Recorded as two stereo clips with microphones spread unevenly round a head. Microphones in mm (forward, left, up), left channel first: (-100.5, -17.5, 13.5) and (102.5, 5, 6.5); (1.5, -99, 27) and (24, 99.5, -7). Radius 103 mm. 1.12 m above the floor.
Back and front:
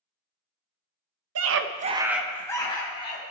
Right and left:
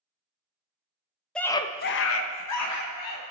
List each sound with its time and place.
1.4 s a scream: 10° right, 0.9 m; by 3.3 s 115° right, 2 m